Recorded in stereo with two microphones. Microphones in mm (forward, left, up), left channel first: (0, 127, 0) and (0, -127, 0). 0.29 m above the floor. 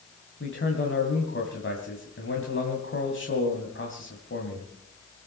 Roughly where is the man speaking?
Left.